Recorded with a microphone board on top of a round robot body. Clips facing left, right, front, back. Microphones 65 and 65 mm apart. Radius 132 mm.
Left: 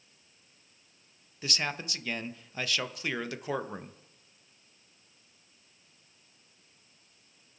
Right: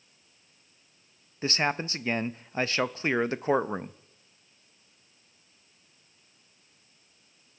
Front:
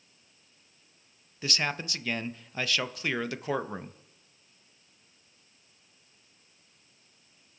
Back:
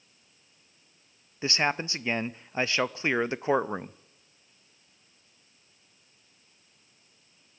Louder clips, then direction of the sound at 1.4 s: Right 7 dB, back 5 dB; 125° right.